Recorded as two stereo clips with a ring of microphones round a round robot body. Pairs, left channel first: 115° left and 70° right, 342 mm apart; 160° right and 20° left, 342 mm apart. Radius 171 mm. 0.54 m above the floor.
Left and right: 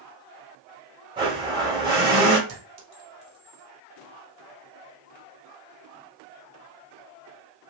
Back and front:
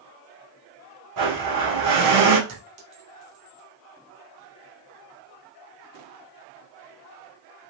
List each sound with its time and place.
1.2 s a blender: 5° left, 1.5 m
2.5 s a clink: 30° right, 1.2 m